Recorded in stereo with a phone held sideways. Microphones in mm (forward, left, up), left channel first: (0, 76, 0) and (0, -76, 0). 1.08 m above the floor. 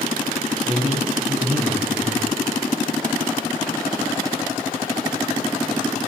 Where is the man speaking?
10° right (ahead or behind), 8.5 m.